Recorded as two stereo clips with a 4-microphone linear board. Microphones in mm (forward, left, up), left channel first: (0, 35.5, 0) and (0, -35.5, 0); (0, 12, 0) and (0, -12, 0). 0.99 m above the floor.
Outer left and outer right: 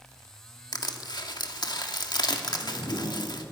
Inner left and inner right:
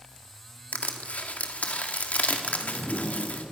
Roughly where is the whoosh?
Left.